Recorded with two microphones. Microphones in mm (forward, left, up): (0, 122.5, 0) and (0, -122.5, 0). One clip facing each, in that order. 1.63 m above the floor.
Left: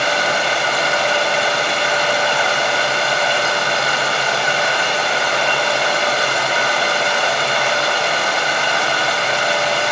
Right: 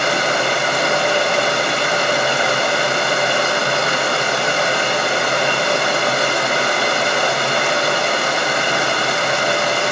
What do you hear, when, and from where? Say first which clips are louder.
0.0 s running water: right 1 dB; 50° right (ahead or behind), 1.6 m